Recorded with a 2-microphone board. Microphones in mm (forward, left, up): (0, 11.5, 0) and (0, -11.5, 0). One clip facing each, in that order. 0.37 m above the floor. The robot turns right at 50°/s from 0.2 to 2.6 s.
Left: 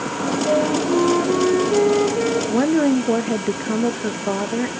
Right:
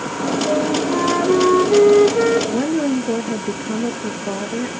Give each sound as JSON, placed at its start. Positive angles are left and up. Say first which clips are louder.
{"t": 0.5, "sound": "a flute", "louder": "left 2 dB", "azimuth_deg": 165, "distance_m": 2.5}
{"t": 2.5, "sound": "a woman speaking", "louder": "left 2 dB", "side_deg": 25, "distance_m": 0.9}